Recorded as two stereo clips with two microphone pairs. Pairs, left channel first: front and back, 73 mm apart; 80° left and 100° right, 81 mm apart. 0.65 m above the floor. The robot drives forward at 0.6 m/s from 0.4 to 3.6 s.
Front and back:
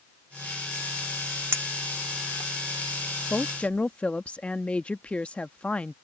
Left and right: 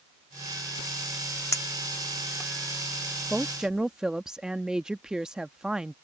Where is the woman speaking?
15° right; by 6.0 s 25° right.